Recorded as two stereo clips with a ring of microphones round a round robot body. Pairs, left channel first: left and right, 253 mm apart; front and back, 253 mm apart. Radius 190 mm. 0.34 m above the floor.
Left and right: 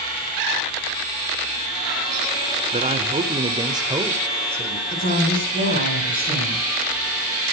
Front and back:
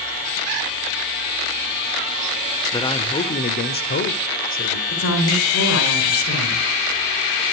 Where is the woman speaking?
25° left, 5 m.